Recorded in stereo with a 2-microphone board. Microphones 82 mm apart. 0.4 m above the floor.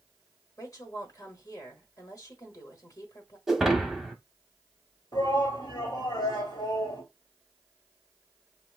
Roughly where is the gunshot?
I don't hear a gunshot.